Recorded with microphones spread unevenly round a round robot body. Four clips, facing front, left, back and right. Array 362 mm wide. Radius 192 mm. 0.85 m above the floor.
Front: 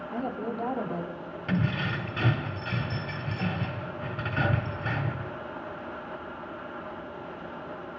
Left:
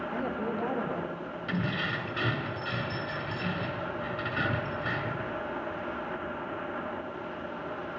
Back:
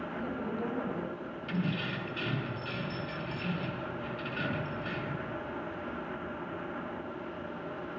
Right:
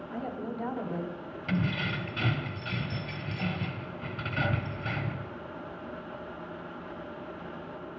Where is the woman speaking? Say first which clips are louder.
Left 2 dB, front 7 dB; 30° left, 5 m.